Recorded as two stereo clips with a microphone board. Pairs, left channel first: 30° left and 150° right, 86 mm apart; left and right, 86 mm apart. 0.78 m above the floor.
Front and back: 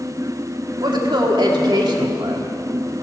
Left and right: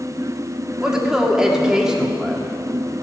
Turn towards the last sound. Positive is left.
turn(degrees=-175)